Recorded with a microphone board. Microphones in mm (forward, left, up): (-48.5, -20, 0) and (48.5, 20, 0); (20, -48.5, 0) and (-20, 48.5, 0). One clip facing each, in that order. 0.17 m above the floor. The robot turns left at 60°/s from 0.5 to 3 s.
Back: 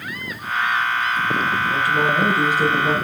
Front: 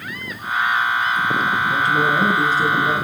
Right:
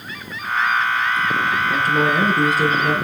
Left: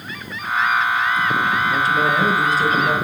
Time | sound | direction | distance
1.7 | a woman speaking | 35° right | 2.5 m